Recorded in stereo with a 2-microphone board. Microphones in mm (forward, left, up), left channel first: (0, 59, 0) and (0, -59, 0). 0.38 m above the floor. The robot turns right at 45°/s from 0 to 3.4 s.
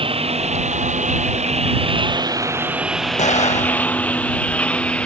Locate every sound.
0.0 s a lawn mower: 50° right (ahead or behind); by 5.1 s 10° left (ahead or behind)
3.2 s an explosion: 75° left (ahead or behind); by 3.9 s 70° left (ahead or behind)